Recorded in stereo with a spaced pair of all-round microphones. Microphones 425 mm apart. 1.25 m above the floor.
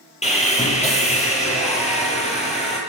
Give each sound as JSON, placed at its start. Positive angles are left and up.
{"t": 0.2, "sound": "sawing", "side_deg": 15, "distance_m": 5.0}